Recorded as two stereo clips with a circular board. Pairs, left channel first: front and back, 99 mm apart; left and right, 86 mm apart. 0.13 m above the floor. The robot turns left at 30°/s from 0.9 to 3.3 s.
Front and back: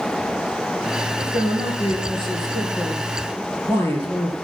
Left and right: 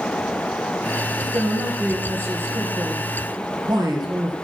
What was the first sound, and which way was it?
A man speaking, straight ahead.